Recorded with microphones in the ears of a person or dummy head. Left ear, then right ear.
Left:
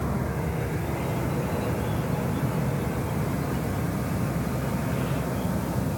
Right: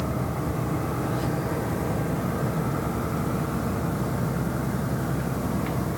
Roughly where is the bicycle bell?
No bicycle bell in this recording.